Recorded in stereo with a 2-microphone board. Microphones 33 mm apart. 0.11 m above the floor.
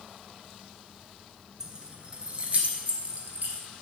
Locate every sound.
1.6 s keys jangling: 25° right (ahead or behind), 1.1 m; by 3.6 s 55° right (ahead or behind), 1.8 m